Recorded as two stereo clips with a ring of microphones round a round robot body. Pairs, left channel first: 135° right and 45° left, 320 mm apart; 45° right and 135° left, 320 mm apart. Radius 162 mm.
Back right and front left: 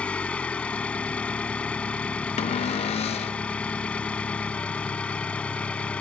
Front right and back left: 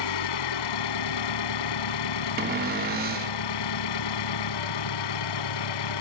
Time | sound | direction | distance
0.0 | an engine running | 50° right | ?
2.4 | a cupboard door | 170° left | ?